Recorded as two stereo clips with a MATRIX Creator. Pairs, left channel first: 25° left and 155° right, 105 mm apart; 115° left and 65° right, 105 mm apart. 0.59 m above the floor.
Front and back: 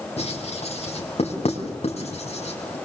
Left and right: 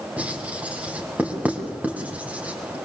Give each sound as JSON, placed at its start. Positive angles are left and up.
{"t": 0.2, "sound": "writing", "azimuth_deg": 10, "distance_m": 5.5}